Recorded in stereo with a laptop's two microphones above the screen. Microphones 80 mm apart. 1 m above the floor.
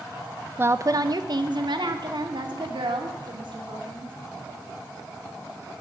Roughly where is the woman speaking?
Right.